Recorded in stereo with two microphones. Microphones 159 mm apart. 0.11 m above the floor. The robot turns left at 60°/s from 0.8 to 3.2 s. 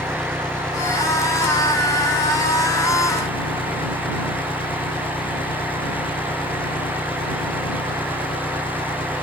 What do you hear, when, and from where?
0.0 s an engine running: 175° left; by 9.2 s 30° left